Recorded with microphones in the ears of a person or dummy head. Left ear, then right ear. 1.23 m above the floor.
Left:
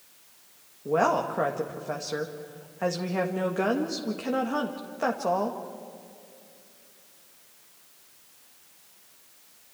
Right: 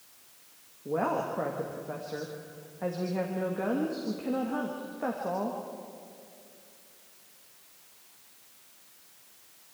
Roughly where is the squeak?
I don't hear a squeak.